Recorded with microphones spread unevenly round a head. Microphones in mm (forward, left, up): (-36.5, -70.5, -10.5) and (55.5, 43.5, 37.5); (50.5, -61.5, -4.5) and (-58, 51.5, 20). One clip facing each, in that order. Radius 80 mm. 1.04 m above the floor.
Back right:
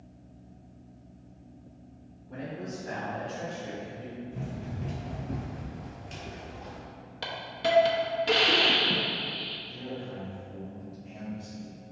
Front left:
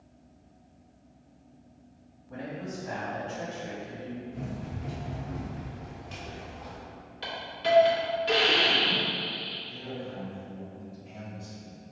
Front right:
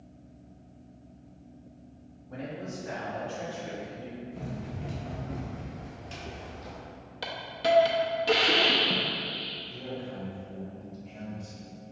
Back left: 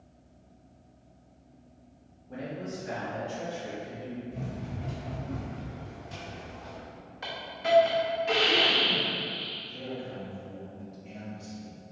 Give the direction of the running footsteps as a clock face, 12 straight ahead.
6 o'clock.